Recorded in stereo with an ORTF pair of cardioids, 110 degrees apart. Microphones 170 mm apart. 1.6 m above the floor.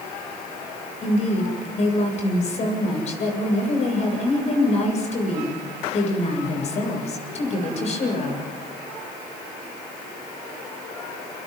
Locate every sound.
1.0 s a woman speaking: 40° left, 8 m